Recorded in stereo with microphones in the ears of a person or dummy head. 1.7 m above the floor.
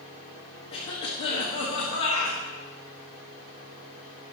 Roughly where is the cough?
Left.